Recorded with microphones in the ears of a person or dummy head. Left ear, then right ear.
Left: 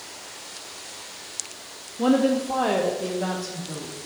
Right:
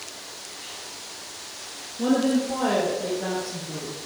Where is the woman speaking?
25° left (ahead or behind), 0.8 m; by 4.0 s 80° left, 3.5 m.